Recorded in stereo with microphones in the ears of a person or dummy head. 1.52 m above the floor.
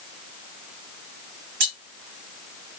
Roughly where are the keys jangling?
Right.